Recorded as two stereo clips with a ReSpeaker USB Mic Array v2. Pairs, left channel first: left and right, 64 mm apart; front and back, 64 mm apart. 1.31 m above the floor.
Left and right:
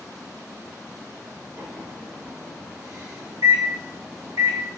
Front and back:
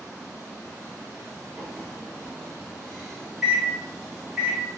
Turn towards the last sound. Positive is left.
turn(degrees=-105)